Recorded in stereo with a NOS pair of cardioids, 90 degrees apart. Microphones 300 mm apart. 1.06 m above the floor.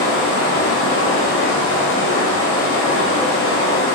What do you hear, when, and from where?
0.0 s running water: 45° left, 1.0 m